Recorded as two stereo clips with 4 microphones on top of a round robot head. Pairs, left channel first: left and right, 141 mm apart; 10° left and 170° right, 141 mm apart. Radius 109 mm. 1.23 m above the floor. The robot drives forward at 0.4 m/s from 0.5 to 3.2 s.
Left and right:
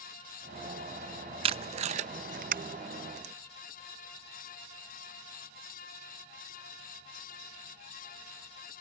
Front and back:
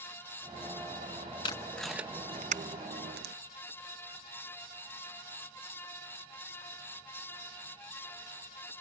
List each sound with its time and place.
1.4 s tape being pulled: 55° right; by 3.3 s 145° right